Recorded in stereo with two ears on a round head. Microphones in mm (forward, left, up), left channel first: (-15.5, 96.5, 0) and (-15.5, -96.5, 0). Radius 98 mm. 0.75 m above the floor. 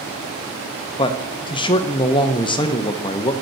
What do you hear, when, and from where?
1.0 s a man speaking: 25° left (ahead or behind), 0.6 m